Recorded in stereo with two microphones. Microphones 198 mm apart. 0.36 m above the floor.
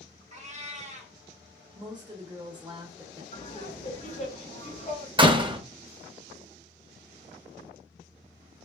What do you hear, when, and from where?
0.3 s a cat meowing: 35° right (ahead or behind), 0.6 m
1.8 s a woman speaking: 20° right (ahead or behind), 0.8 m
3.3 s laughter: 40° left (ahead or behind), 1.8 m
5.2 s a door slam: 25° right (ahead or behind), 0.5 m